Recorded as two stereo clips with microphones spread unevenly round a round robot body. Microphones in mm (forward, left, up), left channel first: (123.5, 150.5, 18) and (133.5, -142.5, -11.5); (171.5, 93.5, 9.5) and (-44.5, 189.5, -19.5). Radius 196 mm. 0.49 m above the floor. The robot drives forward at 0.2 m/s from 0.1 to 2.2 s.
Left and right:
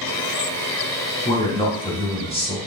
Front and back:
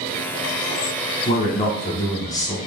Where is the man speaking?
25° left, 0.8 m; by 2.6 s 40° left, 0.7 m.